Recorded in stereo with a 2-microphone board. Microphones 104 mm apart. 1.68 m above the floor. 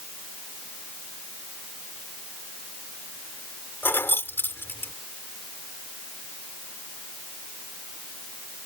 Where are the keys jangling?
20° left (ahead or behind).